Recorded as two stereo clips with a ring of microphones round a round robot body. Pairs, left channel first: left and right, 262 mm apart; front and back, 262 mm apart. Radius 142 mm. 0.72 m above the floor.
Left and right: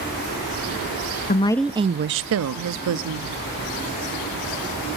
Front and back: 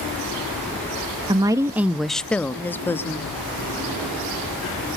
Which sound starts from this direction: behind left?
A woman speaking, at 1.3 s.